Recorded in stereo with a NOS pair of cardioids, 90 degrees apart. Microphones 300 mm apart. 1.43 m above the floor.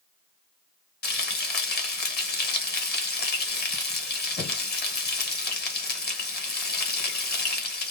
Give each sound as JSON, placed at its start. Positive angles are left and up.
{"t": 1.0, "sound": "frying", "azimuth_deg": 35, "distance_m": 1.4}